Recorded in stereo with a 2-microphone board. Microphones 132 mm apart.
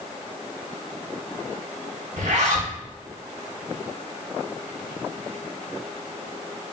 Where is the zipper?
65° right (ahead or behind), 0.6 m.